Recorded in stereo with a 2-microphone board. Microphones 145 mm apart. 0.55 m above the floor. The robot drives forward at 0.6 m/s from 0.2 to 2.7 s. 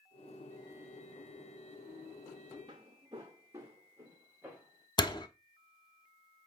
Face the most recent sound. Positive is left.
turn(degrees=30)  # may be behind; listen again after turning